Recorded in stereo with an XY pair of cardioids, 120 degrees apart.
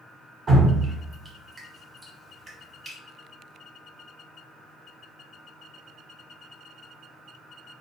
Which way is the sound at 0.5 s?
30° right.